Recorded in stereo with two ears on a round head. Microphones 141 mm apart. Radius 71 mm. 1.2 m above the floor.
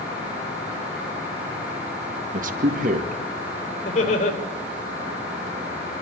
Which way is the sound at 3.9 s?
45° left (ahead or behind).